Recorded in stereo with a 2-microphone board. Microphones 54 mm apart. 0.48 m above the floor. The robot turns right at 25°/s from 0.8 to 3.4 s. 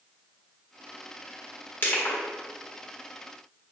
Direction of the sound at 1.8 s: 40° left (ahead or behind).